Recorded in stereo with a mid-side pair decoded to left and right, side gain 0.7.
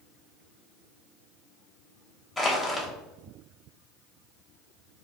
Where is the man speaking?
I don't hear a man speaking.